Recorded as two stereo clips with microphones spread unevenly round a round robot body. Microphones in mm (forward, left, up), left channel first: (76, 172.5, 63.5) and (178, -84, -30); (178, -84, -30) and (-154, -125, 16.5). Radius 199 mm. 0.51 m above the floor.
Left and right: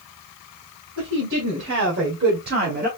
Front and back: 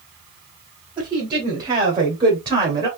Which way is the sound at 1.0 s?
90° right.